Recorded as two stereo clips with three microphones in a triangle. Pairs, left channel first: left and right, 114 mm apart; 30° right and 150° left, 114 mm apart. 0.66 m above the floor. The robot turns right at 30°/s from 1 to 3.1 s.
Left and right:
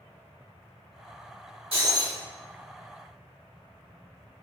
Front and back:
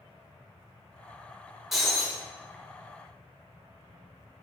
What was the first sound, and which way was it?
Breaking glass, 120° right.